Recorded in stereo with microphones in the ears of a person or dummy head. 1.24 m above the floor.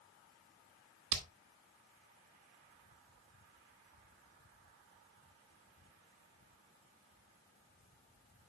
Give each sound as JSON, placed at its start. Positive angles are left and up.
{"t": 1.1, "sound": "hammering", "side_deg": -65, "distance_m": 1.3}